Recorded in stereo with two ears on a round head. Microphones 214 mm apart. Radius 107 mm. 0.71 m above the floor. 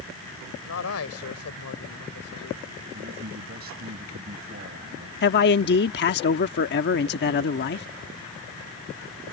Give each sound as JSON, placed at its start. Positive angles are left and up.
{"t": 0.7, "sound": "a man speaking", "side_deg": 65}
{"t": 2.9, "sound": "a man speaking", "side_deg": -45}
{"t": 5.2, "sound": "a man speaking", "side_deg": 45}